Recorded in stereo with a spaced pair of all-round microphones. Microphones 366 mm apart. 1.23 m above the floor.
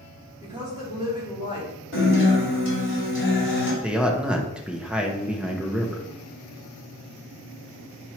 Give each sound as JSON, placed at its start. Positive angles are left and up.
{"t": 0.4, "sound": "a woman speaking", "side_deg": -10, "distance_m": 3.0}
{"t": 1.9, "sound": "a guitar", "side_deg": 35, "distance_m": 3.0}
{"t": 3.8, "sound": "a man speaking", "side_deg": -5, "distance_m": 0.9}